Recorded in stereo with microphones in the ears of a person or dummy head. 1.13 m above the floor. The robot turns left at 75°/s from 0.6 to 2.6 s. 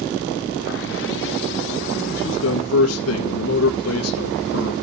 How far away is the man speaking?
About 1.6 m.